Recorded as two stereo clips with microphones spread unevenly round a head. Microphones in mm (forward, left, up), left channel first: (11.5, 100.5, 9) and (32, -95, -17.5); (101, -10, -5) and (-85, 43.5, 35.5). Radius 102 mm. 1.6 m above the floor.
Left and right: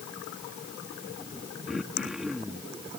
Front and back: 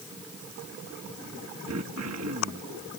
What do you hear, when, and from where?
1.7 s throat clearing: 175° right